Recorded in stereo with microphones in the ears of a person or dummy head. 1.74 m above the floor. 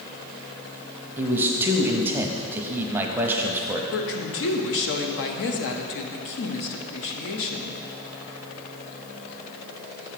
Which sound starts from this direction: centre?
A man speaking, at 1.2 s.